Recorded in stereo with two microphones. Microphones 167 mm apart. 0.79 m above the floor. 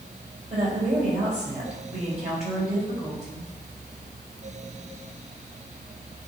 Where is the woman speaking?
40° right (ahead or behind), 3.5 m.